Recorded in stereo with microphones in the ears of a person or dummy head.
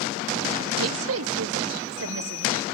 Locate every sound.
0.8 s a woman speaking: 80° right, 0.7 m; by 2.6 s 70° right (ahead or behind), 1.9 m